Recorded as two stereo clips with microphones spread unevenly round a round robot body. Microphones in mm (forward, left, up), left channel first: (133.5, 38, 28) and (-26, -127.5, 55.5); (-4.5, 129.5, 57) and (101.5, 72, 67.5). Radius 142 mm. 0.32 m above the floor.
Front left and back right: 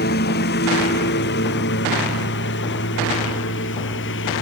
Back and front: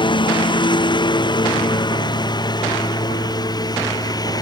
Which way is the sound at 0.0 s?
100° left.